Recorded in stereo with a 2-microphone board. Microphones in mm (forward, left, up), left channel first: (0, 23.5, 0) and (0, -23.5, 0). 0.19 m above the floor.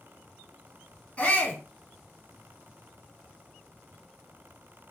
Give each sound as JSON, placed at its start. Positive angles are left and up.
{"t": 1.2, "sound": "a shout", "side_deg": 20, "distance_m": 1.3}